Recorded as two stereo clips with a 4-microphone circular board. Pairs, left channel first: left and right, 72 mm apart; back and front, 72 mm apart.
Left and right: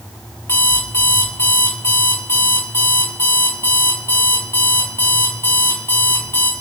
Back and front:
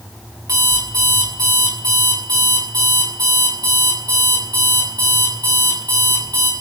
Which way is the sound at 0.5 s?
35° left.